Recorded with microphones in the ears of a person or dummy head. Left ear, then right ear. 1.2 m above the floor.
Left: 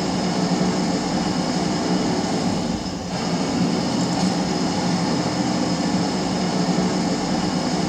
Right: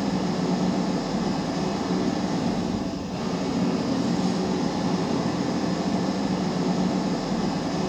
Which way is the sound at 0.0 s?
75° left (ahead or behind).